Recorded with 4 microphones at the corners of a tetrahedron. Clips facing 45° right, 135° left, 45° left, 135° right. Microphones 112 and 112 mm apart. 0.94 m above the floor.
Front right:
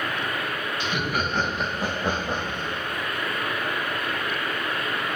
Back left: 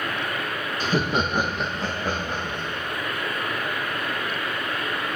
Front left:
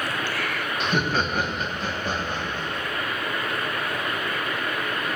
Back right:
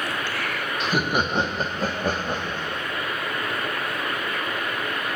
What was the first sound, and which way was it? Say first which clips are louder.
Laughter: back left 5 dB, back right 1 dB; 135° left.